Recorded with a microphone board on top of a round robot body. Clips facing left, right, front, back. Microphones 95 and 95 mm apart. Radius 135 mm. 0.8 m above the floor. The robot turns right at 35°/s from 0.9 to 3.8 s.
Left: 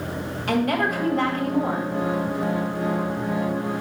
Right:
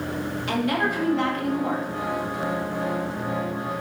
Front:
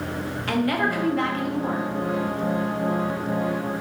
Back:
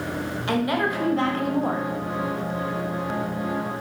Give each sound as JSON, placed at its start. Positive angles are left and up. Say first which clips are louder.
{"t": 0.5, "sound": "a woman speaking", "louder": "left 3 dB, even", "azimuth_deg": 115, "distance_m": 1.2}